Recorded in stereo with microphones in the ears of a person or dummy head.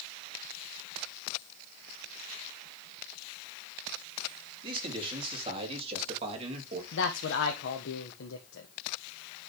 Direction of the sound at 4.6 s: 35° right (ahead or behind).